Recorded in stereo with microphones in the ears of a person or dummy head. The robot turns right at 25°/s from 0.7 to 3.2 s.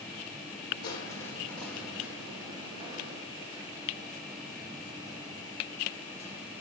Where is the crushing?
160° left, 2 m; by 6.5 s 145° right, 2 m.